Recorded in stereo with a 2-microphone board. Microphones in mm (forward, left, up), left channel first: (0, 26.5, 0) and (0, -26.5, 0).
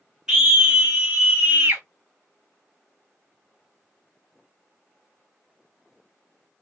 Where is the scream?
15° right (ahead or behind), 1.1 m; by 1.8 s 40° right (ahead or behind), 1.6 m.